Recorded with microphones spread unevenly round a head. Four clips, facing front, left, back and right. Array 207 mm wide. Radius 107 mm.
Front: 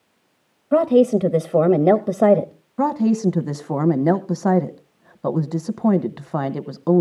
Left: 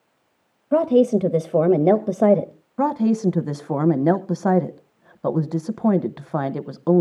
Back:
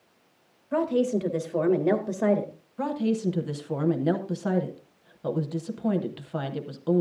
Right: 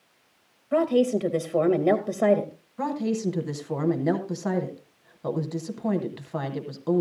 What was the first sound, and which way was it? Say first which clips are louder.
A woman speaking: left 5 dB, front 9 dB; 30° left.